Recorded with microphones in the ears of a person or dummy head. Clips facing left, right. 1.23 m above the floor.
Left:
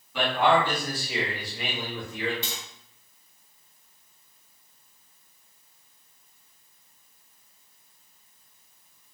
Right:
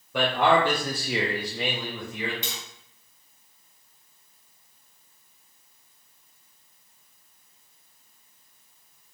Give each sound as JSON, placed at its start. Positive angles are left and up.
{"t": 0.1, "sound": "a man speaking", "side_deg": -40, "distance_m": 0.8}
{"t": 2.4, "sound": "tapping", "side_deg": -25, "distance_m": 0.8}